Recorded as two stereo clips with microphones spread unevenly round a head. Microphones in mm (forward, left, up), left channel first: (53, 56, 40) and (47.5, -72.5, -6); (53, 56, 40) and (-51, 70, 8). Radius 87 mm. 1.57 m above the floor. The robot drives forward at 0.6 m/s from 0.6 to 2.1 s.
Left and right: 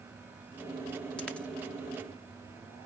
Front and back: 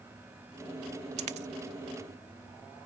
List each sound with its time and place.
1.2 s a dropped coin: 155° left; by 1.5 s 160° left